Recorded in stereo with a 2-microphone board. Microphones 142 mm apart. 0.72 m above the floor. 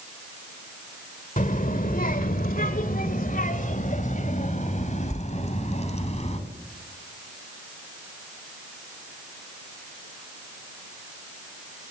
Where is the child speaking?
65° left (ahead or behind), 1.7 m; by 6.4 s 50° left (ahead or behind), 4 m.